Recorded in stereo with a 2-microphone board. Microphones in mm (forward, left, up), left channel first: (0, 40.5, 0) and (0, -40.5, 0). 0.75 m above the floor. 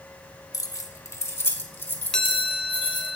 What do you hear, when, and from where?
0.5 s keys jangling: 45° left (ahead or behind), 1.0 m; by 3.1 s 20° left (ahead or behind), 2.5 m
2.1 s a chime: 10° left (ahead or behind), 0.9 m